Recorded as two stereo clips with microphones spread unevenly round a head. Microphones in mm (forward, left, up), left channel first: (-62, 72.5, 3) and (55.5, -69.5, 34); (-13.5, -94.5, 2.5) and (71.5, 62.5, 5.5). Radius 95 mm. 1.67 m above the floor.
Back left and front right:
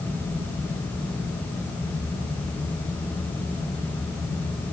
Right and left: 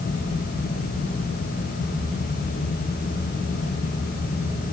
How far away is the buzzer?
No buzzer in this recording.